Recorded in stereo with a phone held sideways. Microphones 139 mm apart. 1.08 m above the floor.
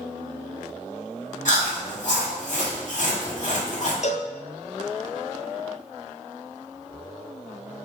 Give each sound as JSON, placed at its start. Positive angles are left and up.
{"t": 1.4, "sound": "chewing", "side_deg": 60, "distance_m": 2.0}
{"t": 4.0, "sound": "a cowbell", "side_deg": 55, "distance_m": 0.5}